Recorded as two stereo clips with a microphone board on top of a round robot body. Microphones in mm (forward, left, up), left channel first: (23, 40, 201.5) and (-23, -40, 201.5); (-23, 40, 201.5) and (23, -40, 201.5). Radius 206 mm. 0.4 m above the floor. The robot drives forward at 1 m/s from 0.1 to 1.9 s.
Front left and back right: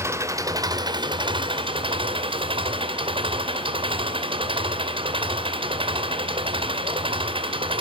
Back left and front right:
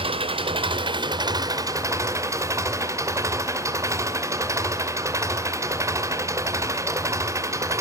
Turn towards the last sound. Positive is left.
turn(degrees=-115)